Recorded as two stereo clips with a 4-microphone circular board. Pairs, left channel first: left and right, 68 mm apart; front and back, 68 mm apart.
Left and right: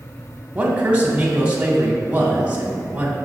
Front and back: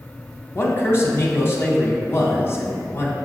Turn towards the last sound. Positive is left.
turn(degrees=-25)